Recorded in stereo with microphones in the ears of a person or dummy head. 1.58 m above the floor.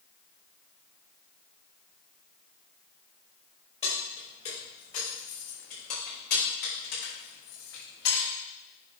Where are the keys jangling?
25° left (ahead or behind), 4 m; by 8.3 s 60° left (ahead or behind), 6 m.